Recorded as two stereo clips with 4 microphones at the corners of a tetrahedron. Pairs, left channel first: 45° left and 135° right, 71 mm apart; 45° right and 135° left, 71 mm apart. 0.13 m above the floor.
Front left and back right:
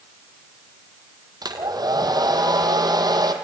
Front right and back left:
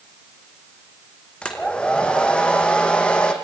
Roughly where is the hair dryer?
Behind right.